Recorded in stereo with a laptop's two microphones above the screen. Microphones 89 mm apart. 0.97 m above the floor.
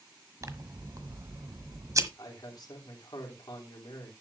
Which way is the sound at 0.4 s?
40° right (ahead or behind).